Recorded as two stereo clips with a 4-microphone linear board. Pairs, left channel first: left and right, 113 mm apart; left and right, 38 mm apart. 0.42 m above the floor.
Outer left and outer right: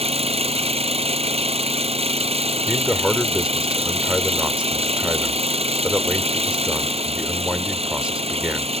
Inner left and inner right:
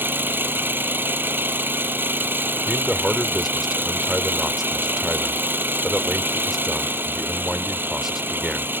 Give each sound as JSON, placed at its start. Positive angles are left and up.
{"t": 0.0, "sound": "an engine running", "side_deg": -65}
{"t": 2.7, "sound": "a man speaking", "side_deg": -10}